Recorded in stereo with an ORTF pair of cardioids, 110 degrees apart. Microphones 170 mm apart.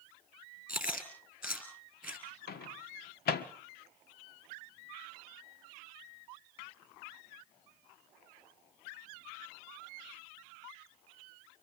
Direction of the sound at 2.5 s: 65° left.